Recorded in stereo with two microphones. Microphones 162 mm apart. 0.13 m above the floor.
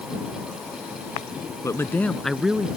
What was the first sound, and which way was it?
A man speaking, 20° left (ahead or behind).